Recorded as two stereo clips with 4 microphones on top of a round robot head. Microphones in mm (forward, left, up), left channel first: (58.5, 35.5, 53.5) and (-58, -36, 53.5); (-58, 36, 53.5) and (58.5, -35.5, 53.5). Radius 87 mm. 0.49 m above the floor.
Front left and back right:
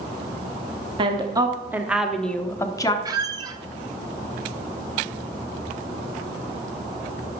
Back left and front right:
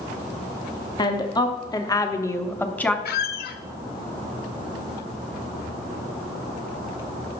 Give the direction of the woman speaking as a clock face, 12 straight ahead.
6 o'clock.